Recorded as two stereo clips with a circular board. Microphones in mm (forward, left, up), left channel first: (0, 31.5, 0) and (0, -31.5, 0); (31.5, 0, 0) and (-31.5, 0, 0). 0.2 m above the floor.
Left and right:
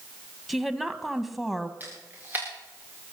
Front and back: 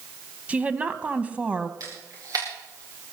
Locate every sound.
0.5 s a woman speaking: 175° right, 1.1 m
1.8 s a camera shutter: 150° right, 5.5 m